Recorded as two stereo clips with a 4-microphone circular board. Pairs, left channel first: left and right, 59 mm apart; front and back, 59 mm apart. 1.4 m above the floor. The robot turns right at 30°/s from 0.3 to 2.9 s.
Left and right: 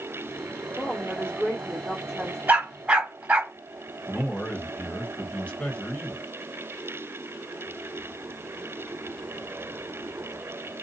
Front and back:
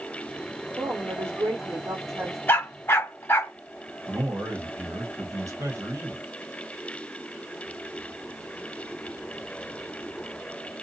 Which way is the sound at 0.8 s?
155° left.